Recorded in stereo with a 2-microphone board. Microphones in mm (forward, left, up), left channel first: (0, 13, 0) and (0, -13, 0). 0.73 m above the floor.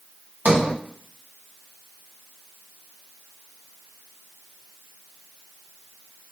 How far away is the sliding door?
About 0.6 m.